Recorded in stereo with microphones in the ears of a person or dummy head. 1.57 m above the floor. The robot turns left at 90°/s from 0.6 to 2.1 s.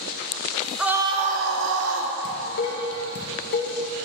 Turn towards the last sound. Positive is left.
turn(degrees=60)  # may be behind; listen again after turning